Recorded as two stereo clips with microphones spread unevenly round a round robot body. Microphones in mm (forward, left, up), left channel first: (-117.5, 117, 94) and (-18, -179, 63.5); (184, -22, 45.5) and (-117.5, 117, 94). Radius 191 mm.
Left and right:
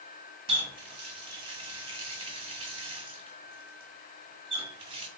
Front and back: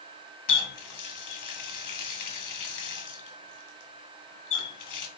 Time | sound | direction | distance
0.5 | a running tap | straight ahead | 1.8 m